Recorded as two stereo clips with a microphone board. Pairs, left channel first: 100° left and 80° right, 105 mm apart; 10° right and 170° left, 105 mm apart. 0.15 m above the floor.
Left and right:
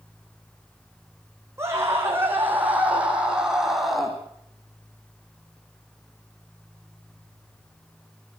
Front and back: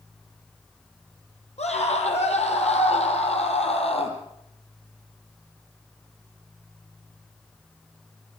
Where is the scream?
15° right, 7 m; by 4.2 s 10° left, 5.5 m.